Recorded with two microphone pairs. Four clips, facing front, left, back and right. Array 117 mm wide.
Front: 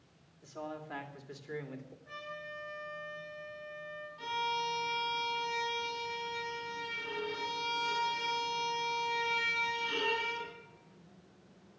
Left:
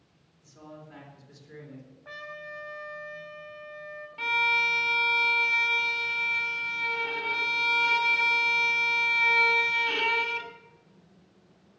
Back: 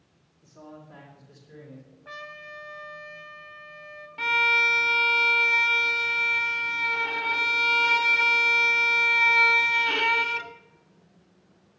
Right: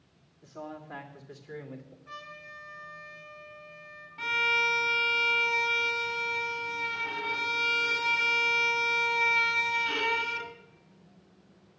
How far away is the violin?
About 1.5 m.